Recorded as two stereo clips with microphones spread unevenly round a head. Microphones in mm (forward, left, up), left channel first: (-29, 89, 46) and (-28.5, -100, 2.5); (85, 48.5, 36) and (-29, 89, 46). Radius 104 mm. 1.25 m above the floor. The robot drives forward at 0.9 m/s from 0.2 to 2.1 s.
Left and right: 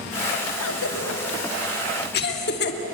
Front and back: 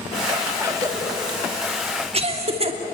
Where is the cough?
95° left, 2 m; by 2.8 s 125° left, 2.5 m.